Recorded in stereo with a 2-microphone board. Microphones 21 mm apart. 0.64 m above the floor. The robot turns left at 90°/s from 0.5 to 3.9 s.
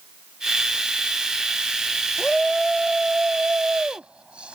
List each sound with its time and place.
2.2 s a shout: 35° left; by 4.6 s 115° right